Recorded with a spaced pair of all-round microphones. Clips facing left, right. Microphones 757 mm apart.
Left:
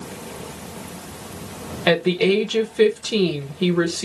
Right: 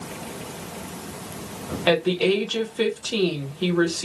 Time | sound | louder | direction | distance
1.9 | a woman speaking | left 2 dB | 55° left (ahead or behind) | 1.1 m